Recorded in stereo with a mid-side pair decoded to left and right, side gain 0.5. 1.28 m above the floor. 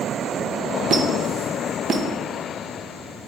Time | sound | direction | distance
0.9 | a squeak | 50° right | 0.5 m